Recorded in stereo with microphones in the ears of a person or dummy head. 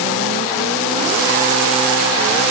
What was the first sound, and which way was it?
Only background noise.